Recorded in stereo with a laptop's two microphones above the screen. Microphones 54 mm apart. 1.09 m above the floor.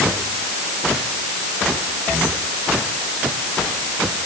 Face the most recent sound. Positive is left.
No sound to turn to.